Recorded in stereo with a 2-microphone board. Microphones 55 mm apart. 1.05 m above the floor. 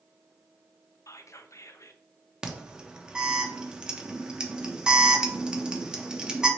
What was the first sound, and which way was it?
Whispering, 60° left (ahead or behind).